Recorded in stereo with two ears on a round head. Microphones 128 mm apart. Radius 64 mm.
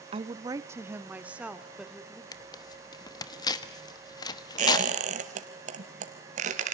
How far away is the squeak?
About 2 m.